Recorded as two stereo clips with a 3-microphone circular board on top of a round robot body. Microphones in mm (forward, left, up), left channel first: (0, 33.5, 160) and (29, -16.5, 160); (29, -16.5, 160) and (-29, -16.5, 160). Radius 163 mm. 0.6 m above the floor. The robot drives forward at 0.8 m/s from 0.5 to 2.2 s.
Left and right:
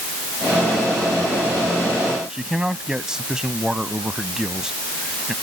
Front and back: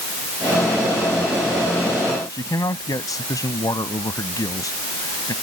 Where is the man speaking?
20° left.